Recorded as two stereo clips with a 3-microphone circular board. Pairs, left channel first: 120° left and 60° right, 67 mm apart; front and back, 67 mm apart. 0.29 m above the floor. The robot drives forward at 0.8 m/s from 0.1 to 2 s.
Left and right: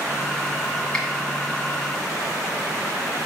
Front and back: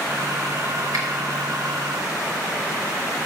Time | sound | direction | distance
0.9 | a finger snap | 165° right | 1.7 m